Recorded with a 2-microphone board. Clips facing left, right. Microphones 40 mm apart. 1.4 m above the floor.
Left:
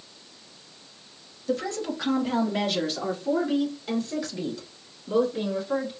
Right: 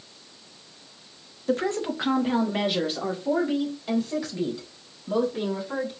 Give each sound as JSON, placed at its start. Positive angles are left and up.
{"t": 1.5, "sound": "a woman speaking", "side_deg": -45, "distance_m": 0.7}